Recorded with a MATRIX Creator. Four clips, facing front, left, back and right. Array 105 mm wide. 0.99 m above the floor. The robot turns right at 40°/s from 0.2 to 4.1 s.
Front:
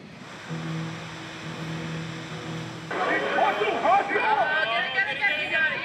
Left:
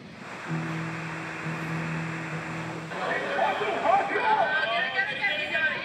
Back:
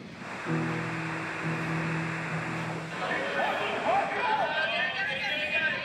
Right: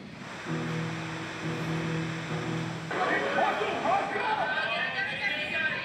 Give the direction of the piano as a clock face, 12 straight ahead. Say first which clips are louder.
Even, back 3 dB; 6 o'clock.